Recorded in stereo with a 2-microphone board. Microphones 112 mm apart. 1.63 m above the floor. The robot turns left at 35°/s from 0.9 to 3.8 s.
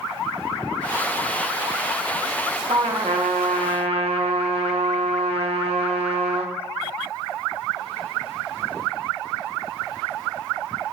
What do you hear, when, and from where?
2.7 s a trumpet: 75° right, 1.0 m; by 6.5 s 115° right, 1.0 m